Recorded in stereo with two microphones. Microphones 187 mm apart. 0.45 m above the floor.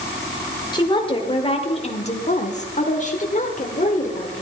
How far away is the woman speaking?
About 1.7 m.